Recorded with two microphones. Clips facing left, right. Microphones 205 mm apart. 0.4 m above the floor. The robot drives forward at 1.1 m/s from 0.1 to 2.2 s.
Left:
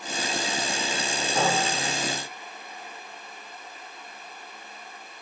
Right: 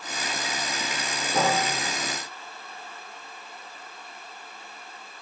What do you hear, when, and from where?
1.3 s a piano: 35° right (ahead or behind), 5 m; by 2.1 s 45° right (ahead or behind), 4 m